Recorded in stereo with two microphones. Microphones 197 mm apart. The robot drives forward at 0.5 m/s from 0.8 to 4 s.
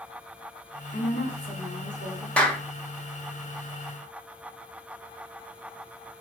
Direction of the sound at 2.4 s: 5° left (ahead or behind).